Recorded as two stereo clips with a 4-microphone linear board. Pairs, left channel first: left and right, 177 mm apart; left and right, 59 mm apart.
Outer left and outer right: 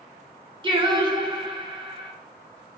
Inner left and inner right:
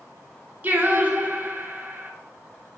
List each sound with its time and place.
0.6 s singing: 30° right (ahead or behind), 0.5 m